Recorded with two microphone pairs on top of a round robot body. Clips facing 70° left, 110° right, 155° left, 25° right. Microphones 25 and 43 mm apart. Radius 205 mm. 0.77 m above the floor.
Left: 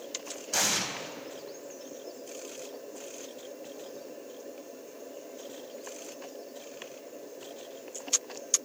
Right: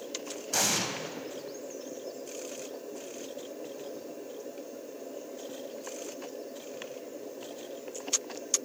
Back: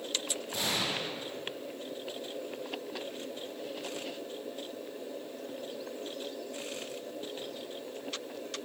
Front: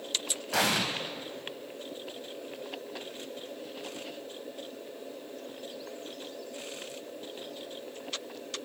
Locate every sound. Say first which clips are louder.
0.5 s an explosion: even, front 6 dB; 20° right, 2.5 m